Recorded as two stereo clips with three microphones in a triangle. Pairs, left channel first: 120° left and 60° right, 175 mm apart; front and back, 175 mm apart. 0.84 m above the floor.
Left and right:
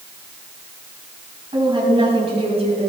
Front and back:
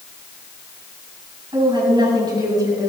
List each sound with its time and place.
1.5 s a woman speaking: 120° right, 7.5 m; by 2.9 s 110° right, 5.5 m